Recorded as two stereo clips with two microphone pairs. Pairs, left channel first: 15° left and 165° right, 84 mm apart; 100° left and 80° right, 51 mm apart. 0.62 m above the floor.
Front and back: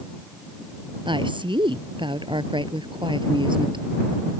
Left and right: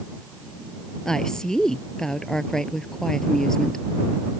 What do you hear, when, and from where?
1.1 s a woman speaking: straight behind